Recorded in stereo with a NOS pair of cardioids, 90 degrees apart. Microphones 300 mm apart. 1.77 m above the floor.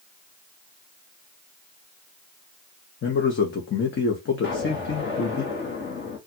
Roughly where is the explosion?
Ahead left.